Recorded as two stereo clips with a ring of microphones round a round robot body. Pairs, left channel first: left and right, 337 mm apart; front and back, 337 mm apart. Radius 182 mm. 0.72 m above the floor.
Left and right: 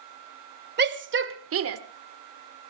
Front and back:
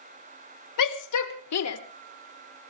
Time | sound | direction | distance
0.8 | a shout | 30° right | 2.5 m